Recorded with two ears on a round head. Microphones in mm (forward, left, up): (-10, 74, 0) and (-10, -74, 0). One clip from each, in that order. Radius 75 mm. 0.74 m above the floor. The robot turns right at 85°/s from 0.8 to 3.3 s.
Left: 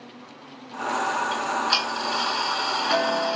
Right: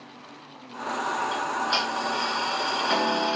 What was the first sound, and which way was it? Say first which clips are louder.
Ticking: left 2 dB; 10° left.